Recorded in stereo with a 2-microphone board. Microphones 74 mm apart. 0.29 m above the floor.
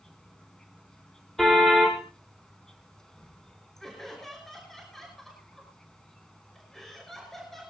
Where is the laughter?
5° left (ahead or behind), 5 m.